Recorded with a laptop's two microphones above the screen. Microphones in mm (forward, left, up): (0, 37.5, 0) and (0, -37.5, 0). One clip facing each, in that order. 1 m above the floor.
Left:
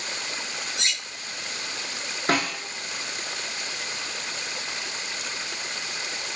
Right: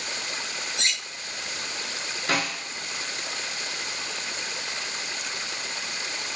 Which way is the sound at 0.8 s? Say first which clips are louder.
Right 1 dB; 5° left (ahead or behind).